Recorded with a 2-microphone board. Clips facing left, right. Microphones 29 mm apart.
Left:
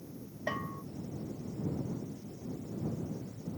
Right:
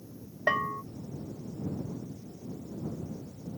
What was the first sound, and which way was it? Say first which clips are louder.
A bell: right 9 dB; 50° right (ahead or behind).